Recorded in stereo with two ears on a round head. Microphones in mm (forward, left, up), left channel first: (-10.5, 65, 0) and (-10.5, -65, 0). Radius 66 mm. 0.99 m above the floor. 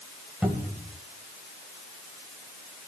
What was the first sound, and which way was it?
A cupboard door, 5° right (ahead or behind).